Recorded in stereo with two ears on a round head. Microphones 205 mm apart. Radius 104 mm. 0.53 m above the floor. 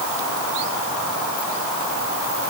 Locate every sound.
Only background noise.